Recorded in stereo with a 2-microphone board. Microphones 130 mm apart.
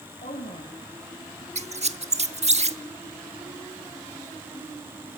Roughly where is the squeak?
Right.